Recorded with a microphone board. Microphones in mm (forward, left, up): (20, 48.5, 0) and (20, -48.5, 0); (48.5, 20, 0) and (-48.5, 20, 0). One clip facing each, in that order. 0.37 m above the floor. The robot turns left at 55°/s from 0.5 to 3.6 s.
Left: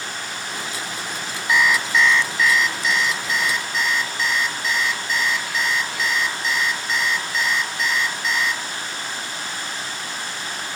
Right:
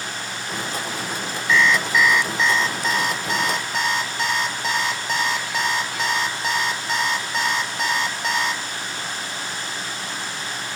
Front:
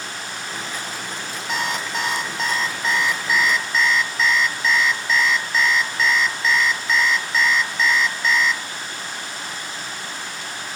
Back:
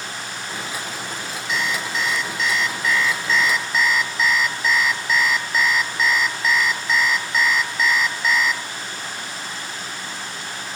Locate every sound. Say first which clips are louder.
1.5 s an alarm clock: right 1 dB, even; 20° left, 1.0 m; by 8.6 s 95° right, 1.0 m